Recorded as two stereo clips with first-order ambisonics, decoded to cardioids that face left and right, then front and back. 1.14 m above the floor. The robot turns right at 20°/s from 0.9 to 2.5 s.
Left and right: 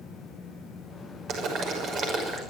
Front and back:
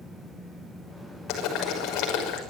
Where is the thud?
I don't hear a thud.